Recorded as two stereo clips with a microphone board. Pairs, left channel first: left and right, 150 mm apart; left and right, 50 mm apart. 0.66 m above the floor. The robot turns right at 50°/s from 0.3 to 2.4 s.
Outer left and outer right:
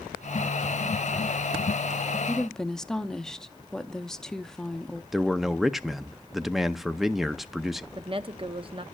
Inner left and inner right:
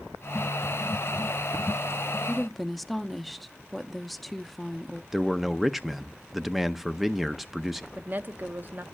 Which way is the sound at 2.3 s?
5° left (ahead or behind).